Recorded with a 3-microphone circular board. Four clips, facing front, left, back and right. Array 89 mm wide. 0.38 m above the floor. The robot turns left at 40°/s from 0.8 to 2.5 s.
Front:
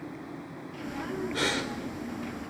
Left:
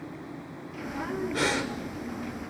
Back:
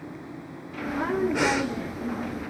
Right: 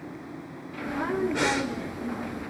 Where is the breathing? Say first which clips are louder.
Right 2 dB, back 6 dB; 170° right, 1.1 m; by 1.7 s 175° left, 1.1 m.